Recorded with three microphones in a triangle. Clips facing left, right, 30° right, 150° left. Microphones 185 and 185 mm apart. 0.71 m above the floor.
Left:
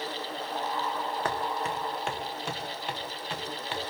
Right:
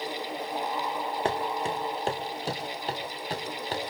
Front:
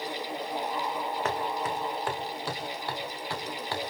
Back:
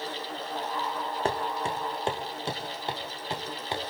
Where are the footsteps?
150° right, 2.5 m; by 3.8 s 140° right, 4 m.